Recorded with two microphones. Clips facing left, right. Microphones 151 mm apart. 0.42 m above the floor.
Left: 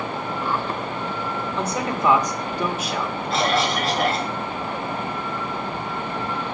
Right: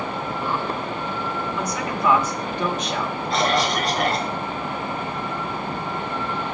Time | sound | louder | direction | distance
1.6 | a man speaking | left 3 dB | 30° left (ahead or behind) | 1.5 m
3.3 | a cough | even | centre (ahead or behind) | 2 m